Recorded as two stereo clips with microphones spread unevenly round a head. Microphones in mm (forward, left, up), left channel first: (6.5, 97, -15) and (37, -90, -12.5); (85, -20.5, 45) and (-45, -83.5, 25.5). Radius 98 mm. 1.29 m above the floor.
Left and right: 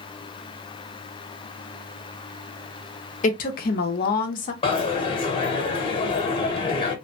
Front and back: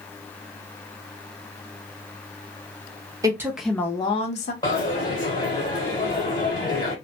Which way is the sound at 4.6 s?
60° left.